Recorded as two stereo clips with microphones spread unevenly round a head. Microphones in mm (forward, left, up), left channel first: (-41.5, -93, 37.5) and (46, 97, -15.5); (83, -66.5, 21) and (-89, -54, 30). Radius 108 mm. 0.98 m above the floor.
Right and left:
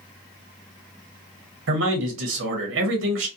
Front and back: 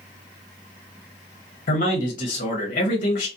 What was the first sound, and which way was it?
A man speaking, 45° left.